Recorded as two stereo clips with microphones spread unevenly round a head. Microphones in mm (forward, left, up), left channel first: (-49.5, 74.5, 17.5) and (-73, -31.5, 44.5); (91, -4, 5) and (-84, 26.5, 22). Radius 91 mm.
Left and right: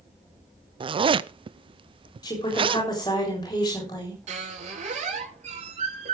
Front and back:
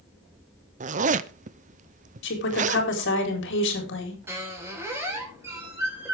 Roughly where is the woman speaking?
Ahead.